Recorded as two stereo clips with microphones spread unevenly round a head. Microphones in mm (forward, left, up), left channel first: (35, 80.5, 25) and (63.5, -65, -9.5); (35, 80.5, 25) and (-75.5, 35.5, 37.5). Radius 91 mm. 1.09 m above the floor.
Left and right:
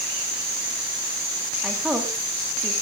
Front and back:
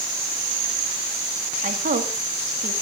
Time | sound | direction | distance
1.6 | a woman speaking | 165° right | 2.5 m